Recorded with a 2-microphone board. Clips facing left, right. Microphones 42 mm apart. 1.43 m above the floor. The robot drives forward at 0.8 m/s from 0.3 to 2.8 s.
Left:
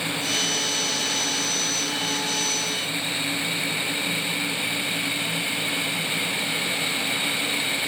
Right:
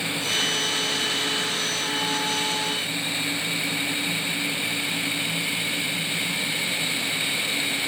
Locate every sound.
Only background noise.